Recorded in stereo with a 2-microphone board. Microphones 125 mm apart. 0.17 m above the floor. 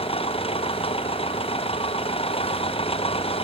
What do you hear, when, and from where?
0.0 s an engine running: 50° left (ahead or behind)